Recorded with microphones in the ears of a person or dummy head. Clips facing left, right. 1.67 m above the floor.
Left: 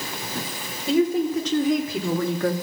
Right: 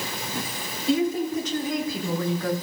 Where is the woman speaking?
65° left (ahead or behind), 2 m; by 2.5 s 55° left (ahead or behind), 1.1 m.